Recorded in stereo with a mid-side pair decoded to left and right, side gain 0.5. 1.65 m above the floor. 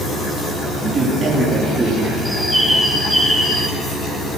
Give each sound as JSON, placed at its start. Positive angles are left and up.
{"t": 0.8, "sound": "a man speaking", "azimuth_deg": -30, "distance_m": 3.5}
{"t": 2.2, "sound": "a bird", "azimuth_deg": -5, "distance_m": 2.5}